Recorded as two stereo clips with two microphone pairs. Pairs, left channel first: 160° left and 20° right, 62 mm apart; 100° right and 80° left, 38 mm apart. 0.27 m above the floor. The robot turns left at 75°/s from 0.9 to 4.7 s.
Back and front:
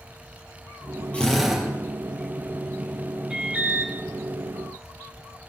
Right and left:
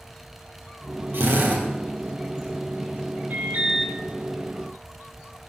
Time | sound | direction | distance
1.1 | a drill | 90° left | 4.5 m
3.3 | an alarm | 55° left | 2.5 m